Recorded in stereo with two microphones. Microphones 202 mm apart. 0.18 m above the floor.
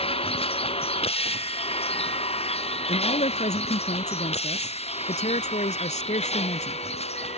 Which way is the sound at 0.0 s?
30° left (ahead or behind).